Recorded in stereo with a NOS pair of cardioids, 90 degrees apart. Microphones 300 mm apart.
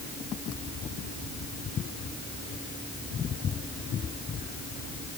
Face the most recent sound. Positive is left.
No sound to turn to.